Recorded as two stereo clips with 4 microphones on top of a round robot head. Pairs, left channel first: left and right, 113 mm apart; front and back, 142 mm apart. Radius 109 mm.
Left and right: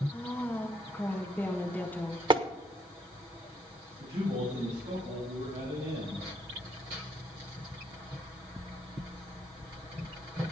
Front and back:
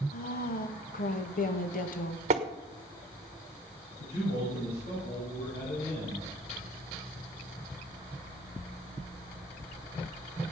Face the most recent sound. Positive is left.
turn(degrees=-55)